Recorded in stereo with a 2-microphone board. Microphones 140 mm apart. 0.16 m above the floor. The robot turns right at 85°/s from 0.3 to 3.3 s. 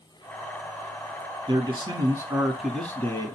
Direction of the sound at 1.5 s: 105° right.